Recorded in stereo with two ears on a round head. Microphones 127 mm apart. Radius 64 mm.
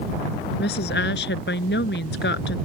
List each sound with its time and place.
0.6 s a woman speaking: 85° left